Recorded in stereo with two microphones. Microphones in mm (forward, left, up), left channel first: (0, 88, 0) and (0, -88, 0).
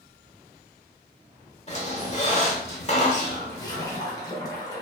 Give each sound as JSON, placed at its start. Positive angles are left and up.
{"t": 1.7, "sound": "a squeak", "side_deg": 40, "distance_m": 0.7}
{"t": 3.5, "sound": "a splash", "side_deg": 20, "distance_m": 0.7}